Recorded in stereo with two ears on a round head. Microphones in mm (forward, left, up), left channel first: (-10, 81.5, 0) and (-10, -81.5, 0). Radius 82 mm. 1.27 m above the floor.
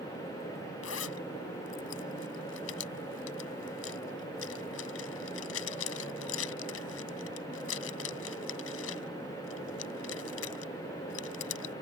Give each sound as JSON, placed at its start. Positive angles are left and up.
{"t": 0.8, "sound": "a zipper", "side_deg": 80}